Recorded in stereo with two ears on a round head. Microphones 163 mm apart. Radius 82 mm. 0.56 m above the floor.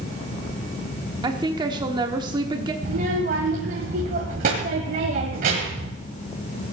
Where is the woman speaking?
25° right (ahead or behind), 1.1 m.